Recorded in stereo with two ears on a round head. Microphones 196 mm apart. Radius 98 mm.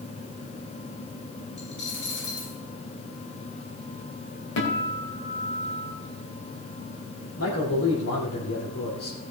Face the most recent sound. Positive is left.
turn(degrees=75)  # may be behind; listen again after turning